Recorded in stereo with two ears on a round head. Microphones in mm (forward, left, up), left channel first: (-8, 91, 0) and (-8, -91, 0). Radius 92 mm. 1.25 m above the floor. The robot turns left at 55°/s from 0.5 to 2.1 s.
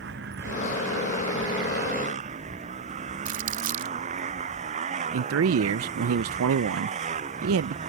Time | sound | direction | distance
0.0 | a motorcycle | 55° right | ?
3.2 | crumpling | 65° right (ahead or behind) | ?
5.1 | a man speaking | 70° right (ahead or behind) | ?